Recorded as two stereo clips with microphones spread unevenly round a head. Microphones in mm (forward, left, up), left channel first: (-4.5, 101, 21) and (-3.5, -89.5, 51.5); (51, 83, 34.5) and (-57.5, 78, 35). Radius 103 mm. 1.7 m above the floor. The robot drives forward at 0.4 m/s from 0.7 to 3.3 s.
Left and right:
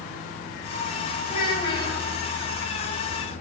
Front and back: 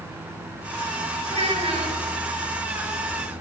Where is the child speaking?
160° left, 9 m.